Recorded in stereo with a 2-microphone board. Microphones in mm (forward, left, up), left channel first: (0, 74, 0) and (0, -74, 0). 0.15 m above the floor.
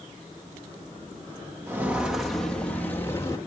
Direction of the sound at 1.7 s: 15° right (ahead or behind).